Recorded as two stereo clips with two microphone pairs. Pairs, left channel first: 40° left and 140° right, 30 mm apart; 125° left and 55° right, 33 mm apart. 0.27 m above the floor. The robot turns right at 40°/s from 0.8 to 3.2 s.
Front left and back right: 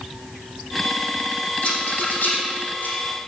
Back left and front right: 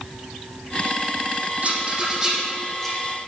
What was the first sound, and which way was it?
A rattle, 5° right.